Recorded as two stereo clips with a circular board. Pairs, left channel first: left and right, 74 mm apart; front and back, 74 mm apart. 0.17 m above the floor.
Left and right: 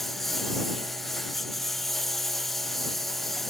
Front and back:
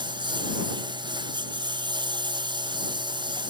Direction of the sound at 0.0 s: 175° left.